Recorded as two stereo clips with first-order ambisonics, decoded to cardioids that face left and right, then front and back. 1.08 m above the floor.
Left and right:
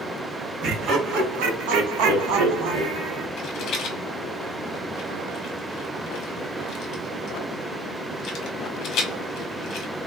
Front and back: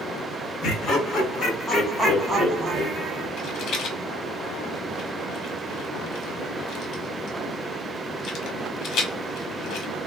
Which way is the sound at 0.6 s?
45° right.